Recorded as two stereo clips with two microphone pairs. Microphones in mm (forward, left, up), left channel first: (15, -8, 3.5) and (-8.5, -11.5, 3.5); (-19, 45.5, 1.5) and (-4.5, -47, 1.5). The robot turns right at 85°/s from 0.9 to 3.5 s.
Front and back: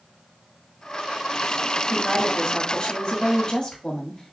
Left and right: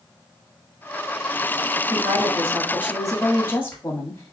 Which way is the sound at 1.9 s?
90° right.